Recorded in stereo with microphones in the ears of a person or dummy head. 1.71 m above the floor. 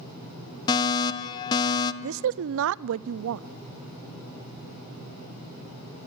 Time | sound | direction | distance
0.7 | a fire alarm | 20° left (ahead or behind) | 1.0 m
2.0 | a woman speaking | 70° right (ahead or behind) | 0.6 m